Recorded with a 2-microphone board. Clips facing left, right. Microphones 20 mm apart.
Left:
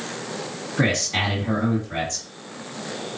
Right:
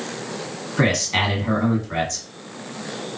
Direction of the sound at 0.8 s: 30° right (ahead or behind).